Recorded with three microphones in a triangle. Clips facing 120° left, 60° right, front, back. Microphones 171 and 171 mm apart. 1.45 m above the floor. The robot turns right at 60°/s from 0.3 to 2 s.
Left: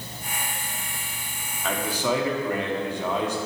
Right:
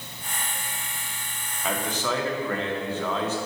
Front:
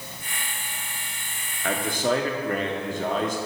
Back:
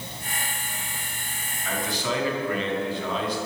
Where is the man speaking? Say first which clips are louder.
Left 2 dB, front 4 dB; 25° left, 1.1 m; by 3.4 s 45° left, 1.1 m.